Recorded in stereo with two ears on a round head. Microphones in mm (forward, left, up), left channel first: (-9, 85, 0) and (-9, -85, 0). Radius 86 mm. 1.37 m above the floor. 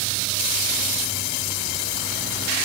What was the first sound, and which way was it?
Only background noise.